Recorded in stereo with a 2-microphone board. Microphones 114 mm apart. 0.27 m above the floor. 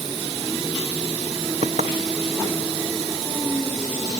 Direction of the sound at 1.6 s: 75° right (ahead or behind).